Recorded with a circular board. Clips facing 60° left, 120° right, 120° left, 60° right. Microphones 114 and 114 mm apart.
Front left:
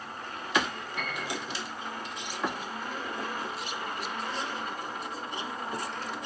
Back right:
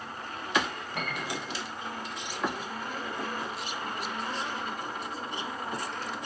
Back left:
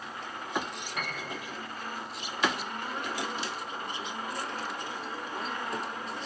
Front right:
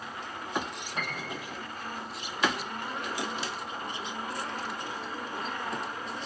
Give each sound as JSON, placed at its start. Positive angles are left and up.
{"t": 0.9, "sound": "a piano", "azimuth_deg": -115, "distance_m": 7.5}